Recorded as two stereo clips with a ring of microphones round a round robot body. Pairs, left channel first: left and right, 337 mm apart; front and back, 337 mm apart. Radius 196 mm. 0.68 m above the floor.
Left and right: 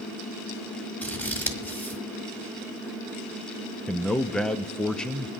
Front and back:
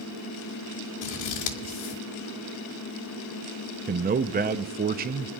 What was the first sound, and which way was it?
Scissors, 5° left.